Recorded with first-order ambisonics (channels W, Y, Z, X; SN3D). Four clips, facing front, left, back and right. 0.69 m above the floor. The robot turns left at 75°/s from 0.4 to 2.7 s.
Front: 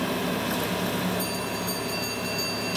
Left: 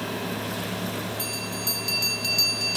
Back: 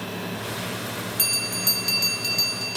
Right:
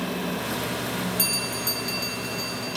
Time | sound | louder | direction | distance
1.2 | a bell | right 4 dB, back 4 dB | 145° right | 2 m